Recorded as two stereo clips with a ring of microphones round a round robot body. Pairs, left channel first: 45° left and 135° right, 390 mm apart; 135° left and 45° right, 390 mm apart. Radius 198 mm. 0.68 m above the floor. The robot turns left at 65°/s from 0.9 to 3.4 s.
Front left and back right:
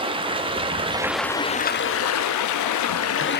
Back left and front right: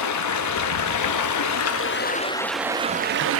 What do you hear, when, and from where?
0.0 s running water: 155° left, 0.8 m; by 3.4 s 10° right, 0.8 m